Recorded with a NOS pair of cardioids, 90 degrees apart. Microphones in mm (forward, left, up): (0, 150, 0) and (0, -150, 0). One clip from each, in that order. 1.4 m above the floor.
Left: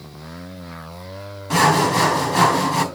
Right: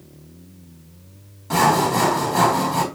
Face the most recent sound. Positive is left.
turn(degrees=-10)